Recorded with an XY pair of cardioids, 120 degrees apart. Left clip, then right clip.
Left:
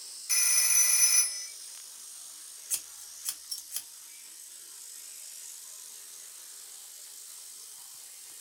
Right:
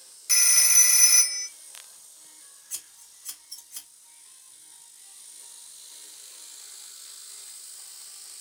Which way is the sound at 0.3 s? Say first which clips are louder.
Right 7 dB; 30° right.